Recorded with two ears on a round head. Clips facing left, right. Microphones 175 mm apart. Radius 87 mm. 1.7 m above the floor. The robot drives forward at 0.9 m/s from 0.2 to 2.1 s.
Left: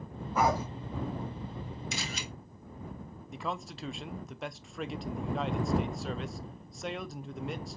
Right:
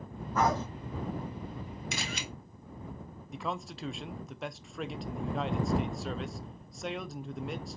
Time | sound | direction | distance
0.3 | a dog barking | 10° left (ahead or behind) | 1.5 m
1.9 | a camera shutter | 50° right (ahead or behind) | 1.5 m
3.3 | a man speaking | centre (ahead or behind) | 0.5 m